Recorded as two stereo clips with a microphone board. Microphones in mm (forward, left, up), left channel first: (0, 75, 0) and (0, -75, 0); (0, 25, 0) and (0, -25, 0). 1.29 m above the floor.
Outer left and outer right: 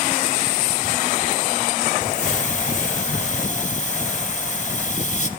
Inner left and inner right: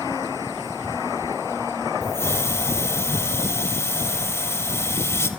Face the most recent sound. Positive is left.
turn(degrees=55)  # may be behind; listen again after turning